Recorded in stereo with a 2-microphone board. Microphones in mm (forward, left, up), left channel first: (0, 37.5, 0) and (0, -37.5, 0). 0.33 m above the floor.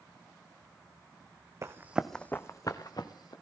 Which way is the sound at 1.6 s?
40° right (ahead or behind).